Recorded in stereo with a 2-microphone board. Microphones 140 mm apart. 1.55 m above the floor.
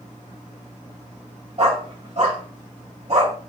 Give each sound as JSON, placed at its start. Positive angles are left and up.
{"t": 1.6, "sound": "a dog barking", "side_deg": -50, "distance_m": 1.9}